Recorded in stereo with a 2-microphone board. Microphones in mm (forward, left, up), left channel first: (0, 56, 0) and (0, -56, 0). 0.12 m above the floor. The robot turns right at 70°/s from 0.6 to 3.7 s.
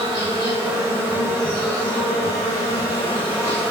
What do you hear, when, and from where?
0.0 s an insect: 50° right, 5 m; by 3.7 s 170° left, 5 m